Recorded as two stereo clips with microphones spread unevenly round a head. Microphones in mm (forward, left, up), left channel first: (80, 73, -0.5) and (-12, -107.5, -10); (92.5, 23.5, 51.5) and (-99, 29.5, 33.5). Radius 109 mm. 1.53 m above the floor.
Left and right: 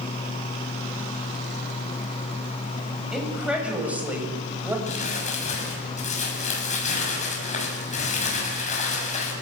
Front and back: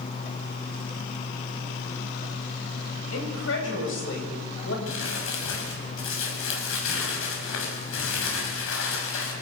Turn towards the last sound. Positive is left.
turn(degrees=10)